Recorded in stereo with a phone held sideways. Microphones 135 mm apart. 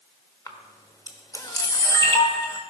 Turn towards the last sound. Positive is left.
turn(degrees=25)  # may be behind; listen again after turning